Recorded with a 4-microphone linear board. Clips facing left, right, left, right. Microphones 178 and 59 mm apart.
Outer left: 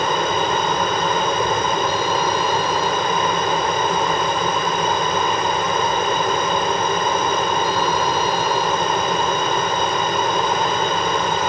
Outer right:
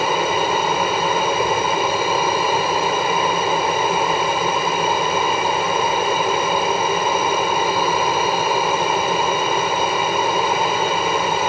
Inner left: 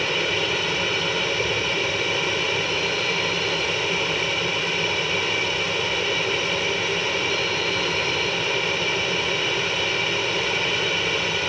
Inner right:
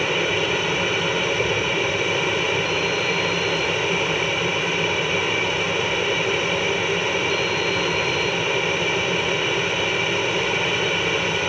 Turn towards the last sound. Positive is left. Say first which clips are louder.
# outer right 1 dB, inner right 2 dB
turn(degrees=-5)  # may be behind; listen again after turning